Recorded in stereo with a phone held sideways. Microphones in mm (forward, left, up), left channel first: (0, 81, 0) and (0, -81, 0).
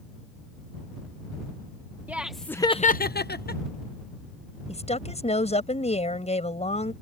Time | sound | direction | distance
2.1 | laughter | 10° right (ahead or behind) | ?
4.7 | a woman speaking | 40° left (ahead or behind) | ?